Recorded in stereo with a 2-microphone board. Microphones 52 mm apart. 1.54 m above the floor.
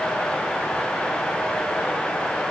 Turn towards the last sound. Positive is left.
No sound to turn to.